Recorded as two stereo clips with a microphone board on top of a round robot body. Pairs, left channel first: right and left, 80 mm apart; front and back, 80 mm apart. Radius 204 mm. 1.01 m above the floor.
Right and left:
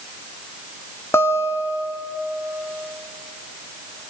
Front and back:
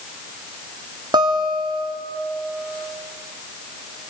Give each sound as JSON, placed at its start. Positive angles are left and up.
{"t": 1.1, "sound": "a guitar", "azimuth_deg": -150, "distance_m": 2.0}